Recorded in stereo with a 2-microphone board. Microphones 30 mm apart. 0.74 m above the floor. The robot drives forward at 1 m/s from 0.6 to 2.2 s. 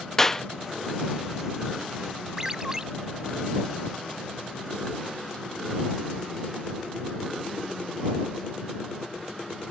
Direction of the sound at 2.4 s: 20° right (ahead or behind).